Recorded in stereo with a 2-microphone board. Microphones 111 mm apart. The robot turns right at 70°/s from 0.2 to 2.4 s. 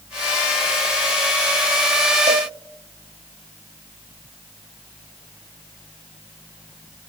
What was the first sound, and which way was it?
A cowbell, 70° right (ahead or behind).